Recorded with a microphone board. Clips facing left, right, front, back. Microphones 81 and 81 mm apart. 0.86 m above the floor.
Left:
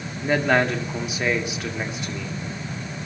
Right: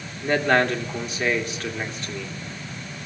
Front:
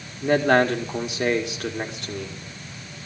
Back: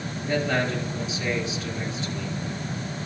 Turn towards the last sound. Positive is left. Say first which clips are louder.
# even, front 7 dB
turn(degrees=10)